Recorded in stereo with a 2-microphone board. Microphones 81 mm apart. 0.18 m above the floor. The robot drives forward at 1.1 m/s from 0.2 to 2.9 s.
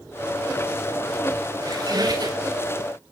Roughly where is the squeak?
Right.